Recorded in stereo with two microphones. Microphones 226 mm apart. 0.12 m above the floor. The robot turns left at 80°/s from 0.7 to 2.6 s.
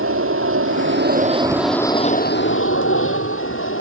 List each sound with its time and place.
0.0 s an aircraft: 100° right; by 3.8 s 105° left